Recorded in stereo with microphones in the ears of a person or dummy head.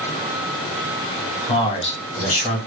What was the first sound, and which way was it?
A man speaking, 25° left (ahead or behind).